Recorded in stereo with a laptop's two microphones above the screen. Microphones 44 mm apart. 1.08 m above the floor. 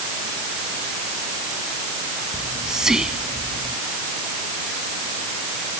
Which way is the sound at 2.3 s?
15° right (ahead or behind).